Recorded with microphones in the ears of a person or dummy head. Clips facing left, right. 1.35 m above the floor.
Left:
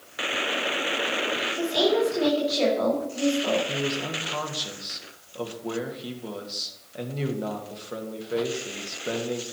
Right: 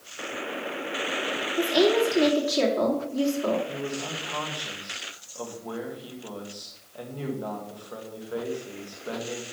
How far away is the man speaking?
About 1.9 m.